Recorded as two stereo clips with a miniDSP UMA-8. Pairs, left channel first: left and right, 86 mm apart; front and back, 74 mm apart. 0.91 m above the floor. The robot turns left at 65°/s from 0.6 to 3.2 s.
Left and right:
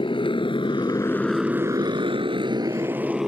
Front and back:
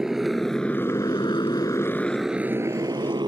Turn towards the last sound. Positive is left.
turn(degrees=-175)